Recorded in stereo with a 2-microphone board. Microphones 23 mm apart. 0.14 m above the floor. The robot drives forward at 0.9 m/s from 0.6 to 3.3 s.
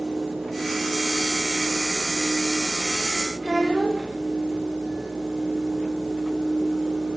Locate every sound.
3.4 s a child speaking: 25° right (ahead or behind), 6.5 m